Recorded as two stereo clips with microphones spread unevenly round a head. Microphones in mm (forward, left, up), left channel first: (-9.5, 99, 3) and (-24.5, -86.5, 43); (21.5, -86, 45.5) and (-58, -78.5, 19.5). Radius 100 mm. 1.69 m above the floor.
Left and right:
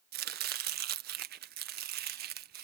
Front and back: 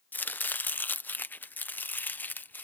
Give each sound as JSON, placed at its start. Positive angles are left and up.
{"t": 0.1, "sound": "chopping", "azimuth_deg": -65}